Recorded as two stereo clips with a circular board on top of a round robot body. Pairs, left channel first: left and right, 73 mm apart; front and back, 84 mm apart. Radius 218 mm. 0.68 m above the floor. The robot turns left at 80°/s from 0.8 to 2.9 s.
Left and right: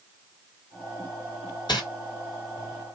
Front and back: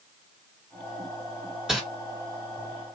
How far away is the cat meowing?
I don't hear a cat meowing.